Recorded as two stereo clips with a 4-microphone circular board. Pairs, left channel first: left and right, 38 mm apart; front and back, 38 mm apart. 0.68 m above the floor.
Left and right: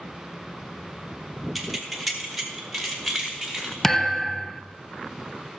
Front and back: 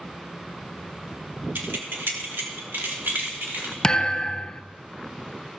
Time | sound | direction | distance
1.6 | keys jangling | straight behind | 1.4 m
3.8 | a thud | 25° left | 0.7 m